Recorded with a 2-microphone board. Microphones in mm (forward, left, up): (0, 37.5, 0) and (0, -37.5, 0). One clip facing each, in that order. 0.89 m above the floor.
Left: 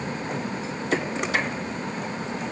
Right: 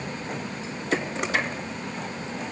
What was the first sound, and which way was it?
Only background noise.